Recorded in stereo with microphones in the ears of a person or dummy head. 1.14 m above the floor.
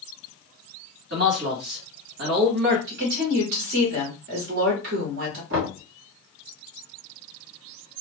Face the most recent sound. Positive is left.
turn(degrees=-65)  # may be behind; listen again after turning